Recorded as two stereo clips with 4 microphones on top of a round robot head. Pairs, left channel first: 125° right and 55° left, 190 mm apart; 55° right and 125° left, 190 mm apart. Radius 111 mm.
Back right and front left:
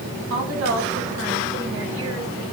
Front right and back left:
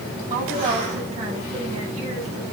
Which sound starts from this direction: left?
A woman speaking, at 0.3 s.